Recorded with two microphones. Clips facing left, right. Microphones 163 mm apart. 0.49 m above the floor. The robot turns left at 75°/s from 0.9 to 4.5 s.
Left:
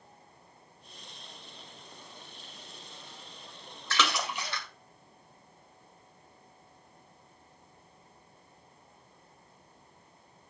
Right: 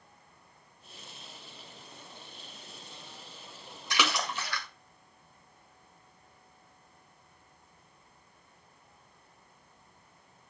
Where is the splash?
15° right (ahead or behind), 1.9 m; by 4.7 s 25° left (ahead or behind), 1.9 m.